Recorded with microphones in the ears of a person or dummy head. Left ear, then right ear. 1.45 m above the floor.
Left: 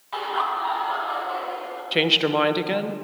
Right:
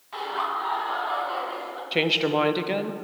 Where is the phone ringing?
No phone ringing in this recording.